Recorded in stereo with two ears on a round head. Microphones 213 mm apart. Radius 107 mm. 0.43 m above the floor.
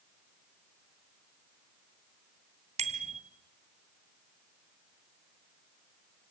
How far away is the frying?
No frying in this recording.